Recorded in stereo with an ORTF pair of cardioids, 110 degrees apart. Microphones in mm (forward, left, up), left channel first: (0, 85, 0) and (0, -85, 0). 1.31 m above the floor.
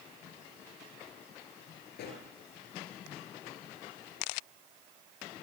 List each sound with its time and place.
1.9 s a pop: 70° left, 8 m